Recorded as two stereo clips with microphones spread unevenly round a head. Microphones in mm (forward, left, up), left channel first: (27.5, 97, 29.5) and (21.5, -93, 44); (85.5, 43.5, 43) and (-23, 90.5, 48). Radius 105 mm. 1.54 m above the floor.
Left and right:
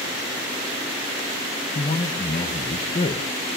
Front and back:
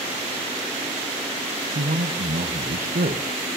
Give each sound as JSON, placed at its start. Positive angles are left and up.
{"t": 1.8, "sound": "a man speaking", "azimuth_deg": 150, "distance_m": 1.8}